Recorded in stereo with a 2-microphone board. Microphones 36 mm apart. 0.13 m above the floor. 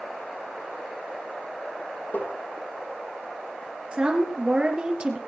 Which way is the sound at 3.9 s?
25° right (ahead or behind).